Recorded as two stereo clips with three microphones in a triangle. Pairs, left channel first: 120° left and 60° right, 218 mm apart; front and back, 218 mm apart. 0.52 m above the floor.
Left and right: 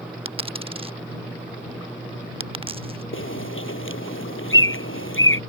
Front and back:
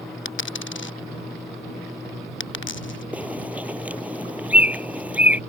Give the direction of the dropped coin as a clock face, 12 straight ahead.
12 o'clock.